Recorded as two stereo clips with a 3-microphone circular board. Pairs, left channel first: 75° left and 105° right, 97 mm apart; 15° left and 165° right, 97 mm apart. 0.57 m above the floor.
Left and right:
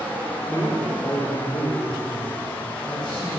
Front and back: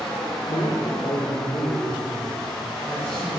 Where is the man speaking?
5° left, 1.1 m; by 3.3 s 90° left, 2.5 m.